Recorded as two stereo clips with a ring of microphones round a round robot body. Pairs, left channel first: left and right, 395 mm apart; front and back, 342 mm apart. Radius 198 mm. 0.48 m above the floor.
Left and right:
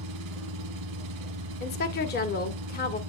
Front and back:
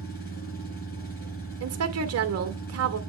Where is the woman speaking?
150° left, 2.0 m.